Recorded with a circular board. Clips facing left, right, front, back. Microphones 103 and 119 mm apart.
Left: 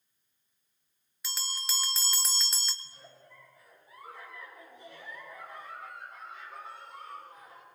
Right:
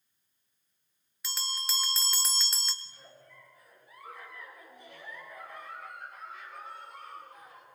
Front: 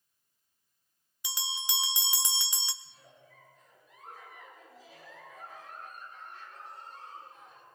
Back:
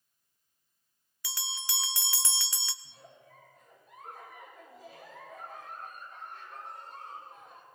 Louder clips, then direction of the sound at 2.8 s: Even, back 3 dB; 150° left.